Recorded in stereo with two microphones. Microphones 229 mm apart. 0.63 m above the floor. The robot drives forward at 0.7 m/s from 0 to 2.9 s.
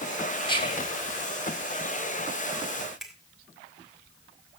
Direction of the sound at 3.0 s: Centre (ahead or behind).